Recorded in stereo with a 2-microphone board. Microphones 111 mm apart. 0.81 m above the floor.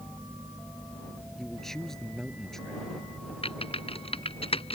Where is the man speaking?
5° left (ahead or behind).